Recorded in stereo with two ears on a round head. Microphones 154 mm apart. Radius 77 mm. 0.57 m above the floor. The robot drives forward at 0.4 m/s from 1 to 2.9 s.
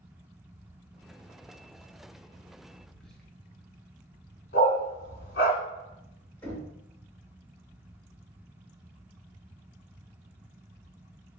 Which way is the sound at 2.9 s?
5° left (ahead or behind).